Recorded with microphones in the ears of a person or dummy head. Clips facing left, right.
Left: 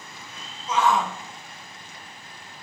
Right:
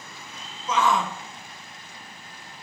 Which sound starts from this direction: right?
A shout, at 0.7 s.